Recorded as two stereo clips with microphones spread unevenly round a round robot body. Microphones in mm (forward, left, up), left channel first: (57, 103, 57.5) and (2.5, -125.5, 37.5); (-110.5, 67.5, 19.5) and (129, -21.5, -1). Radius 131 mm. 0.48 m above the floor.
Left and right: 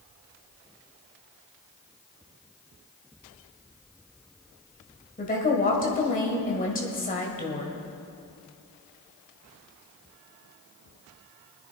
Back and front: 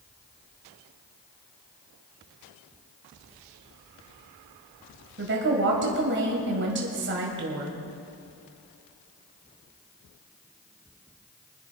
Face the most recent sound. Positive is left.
turn(degrees=20)